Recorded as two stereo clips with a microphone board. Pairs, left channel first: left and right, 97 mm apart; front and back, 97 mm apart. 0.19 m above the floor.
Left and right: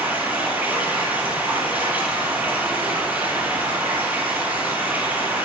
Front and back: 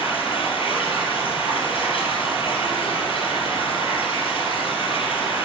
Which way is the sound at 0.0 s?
20° right.